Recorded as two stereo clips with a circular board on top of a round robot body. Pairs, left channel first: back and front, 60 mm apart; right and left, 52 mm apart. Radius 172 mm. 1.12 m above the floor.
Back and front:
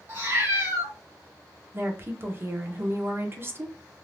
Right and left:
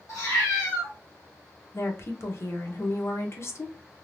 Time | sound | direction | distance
0.1 | a cat meowing | 55° right | 1.3 m
1.7 | a woman speaking | 50° right | 1.1 m